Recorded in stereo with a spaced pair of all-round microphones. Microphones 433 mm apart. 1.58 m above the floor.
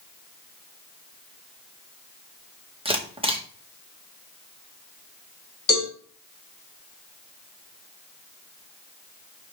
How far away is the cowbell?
About 3.5 m.